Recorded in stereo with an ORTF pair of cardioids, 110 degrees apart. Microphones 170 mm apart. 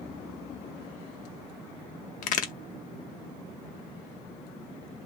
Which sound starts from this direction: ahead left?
A crack, at 2.2 s.